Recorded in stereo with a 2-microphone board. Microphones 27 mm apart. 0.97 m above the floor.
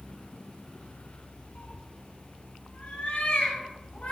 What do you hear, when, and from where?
1.6 s a cat meowing: 80° left, 1.9 m; by 4.1 s 75° left (ahead or behind), 5 m